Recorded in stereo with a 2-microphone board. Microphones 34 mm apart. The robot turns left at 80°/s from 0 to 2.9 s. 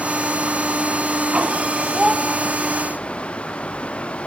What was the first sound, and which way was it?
A child speaking, 20° right (ahead or behind).